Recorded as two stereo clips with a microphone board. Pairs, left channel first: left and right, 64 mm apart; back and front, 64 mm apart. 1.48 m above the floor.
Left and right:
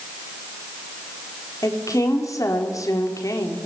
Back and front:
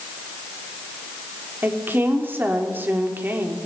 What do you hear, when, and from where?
1.6 s a woman speaking: 60° left, 4 m